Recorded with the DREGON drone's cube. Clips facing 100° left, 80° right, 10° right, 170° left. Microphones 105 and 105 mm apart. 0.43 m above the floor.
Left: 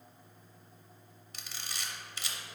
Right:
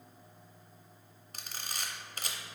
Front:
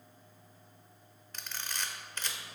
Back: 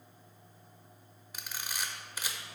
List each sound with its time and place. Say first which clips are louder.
1.3 s a camera shutter: right 2 dB, even; 110° right, 0.7 m